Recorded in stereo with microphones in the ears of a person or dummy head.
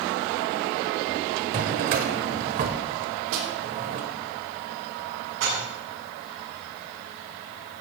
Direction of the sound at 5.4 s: 85° right.